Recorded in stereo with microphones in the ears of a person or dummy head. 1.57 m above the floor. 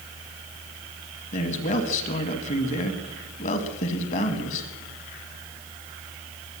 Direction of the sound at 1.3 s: 40° left (ahead or behind).